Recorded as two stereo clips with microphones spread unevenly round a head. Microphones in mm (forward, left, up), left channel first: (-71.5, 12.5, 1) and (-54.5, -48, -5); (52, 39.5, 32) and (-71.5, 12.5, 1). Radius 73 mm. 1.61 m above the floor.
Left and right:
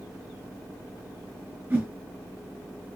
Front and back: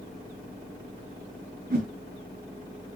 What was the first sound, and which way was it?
A whoosh, 130° right.